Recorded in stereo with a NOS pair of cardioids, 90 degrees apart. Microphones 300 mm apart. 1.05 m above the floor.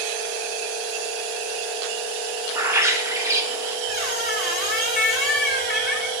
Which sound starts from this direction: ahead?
A bird, at 2.5 s.